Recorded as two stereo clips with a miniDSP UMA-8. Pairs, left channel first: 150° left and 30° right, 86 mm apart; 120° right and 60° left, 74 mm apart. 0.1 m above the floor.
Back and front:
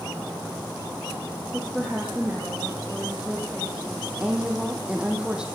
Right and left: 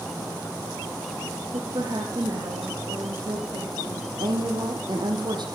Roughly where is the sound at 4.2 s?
Ahead left.